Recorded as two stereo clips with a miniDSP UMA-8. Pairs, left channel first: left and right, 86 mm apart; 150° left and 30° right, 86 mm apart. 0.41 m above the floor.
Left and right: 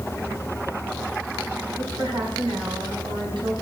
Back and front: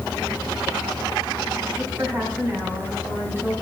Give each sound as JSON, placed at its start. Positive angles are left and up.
{"t": 1.8, "sound": "a woman speaking", "azimuth_deg": -95, "distance_m": 4.0}